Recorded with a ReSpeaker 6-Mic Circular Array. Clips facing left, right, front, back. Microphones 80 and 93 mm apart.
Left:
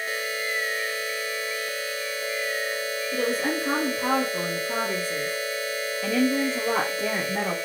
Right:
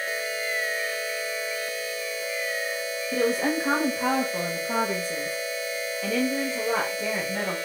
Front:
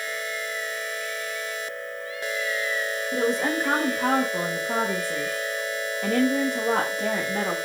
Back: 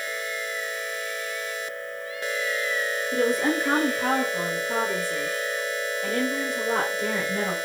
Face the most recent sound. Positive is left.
turn(degrees=20)